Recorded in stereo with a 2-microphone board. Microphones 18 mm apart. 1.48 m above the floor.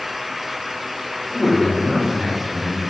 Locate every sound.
1.3 s a man speaking: 15° left (ahead or behind), 4.5 m